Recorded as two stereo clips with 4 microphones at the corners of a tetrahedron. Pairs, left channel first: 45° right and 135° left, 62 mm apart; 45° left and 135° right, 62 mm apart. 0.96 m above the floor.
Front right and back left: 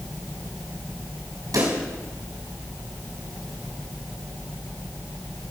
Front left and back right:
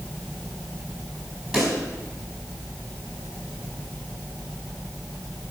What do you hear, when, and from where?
1.5 s a pop: 145° left, 4.5 m